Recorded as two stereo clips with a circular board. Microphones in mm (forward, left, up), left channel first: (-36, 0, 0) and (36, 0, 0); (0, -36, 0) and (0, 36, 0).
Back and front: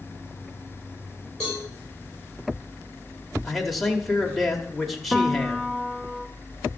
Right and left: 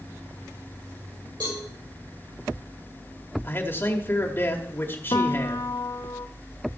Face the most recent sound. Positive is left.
turn(degrees=-85)